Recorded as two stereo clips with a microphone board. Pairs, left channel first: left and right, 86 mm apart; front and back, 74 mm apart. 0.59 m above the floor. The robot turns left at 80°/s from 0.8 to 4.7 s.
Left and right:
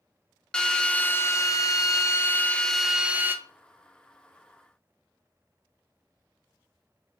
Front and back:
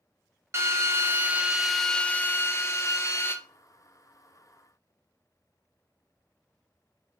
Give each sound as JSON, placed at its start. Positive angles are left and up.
{"t": 0.5, "sound": "a drill", "azimuth_deg": 160, "distance_m": 0.5}